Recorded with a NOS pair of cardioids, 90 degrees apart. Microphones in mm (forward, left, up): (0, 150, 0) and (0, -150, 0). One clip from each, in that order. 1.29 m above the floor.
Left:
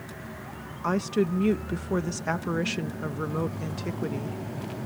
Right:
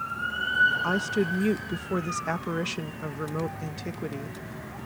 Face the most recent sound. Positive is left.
turn(degrees=10)